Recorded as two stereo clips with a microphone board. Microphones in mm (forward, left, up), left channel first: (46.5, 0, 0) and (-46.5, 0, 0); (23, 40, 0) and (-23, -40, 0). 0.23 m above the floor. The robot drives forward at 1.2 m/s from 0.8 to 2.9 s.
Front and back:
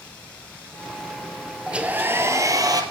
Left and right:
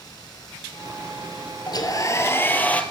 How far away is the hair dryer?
About 1.7 m.